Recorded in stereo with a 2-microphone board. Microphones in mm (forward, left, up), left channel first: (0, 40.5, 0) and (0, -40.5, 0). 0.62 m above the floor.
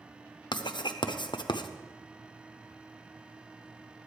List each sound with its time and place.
0.5 s writing: 70° left (ahead or behind), 0.7 m